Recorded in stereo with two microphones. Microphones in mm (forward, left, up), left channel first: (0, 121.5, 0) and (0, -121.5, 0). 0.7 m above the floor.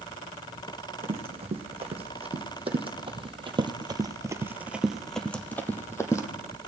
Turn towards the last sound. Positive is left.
turn(degrees=15)  # may be behind; listen again after turning